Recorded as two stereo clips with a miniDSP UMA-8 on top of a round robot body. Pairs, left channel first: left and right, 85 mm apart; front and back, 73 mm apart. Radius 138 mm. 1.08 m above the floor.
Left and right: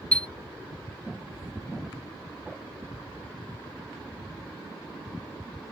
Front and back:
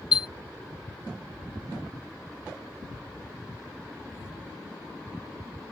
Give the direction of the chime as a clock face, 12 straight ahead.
12 o'clock.